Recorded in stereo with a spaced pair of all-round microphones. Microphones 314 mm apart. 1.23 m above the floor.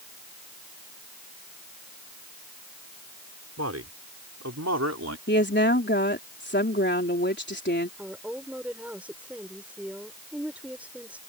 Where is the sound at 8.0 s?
5° right (ahead or behind).